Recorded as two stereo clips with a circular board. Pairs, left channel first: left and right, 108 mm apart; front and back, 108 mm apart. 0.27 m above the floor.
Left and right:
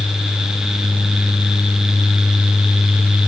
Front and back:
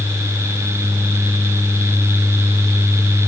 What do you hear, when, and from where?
Only background noise.